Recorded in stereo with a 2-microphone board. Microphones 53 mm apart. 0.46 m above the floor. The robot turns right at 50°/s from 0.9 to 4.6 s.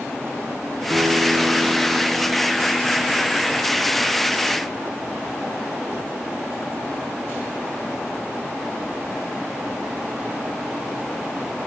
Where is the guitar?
95° right, 1.7 m; by 4.8 s 90° left, 1.7 m.